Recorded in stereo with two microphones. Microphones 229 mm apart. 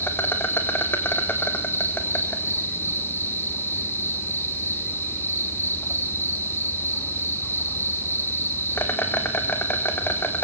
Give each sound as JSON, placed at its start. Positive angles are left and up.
{"t": 0.0, "sound": "an insect", "side_deg": 10, "distance_m": 3.0}